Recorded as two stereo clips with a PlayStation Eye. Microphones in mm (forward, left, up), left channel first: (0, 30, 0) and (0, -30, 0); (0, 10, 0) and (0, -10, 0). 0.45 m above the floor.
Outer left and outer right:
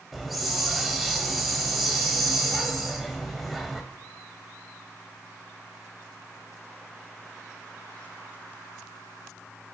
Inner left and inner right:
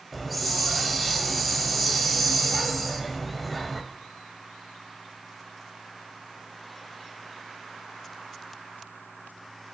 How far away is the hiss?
About 1.2 m.